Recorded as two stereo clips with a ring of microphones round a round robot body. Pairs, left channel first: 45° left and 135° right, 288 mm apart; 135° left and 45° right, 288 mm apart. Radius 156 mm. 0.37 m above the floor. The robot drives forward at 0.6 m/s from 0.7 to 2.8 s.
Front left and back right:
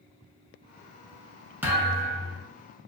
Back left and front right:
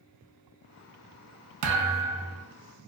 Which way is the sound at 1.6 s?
50° right.